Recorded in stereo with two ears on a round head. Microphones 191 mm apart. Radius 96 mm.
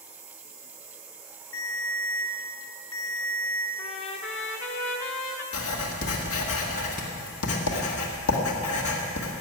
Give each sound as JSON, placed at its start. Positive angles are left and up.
{"t": 1.5, "sound": "a ringtone", "side_deg": 80, "distance_m": 3.5}
{"t": 3.8, "sound": "a trumpet", "side_deg": 60, "distance_m": 1.7}
{"t": 5.5, "sound": "writing", "side_deg": 80, "distance_m": 1.9}